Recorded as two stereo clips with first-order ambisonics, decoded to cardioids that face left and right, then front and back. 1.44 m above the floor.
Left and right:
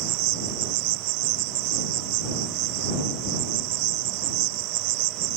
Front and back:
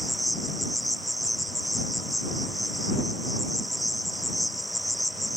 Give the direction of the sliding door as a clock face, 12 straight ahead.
I don't hear a sliding door.